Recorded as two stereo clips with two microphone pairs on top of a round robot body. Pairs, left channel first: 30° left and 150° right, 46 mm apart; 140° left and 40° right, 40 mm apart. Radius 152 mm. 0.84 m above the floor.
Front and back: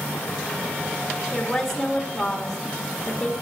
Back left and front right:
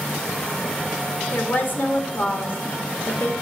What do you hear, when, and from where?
1.3 s a woman speaking: 120° left, 2 m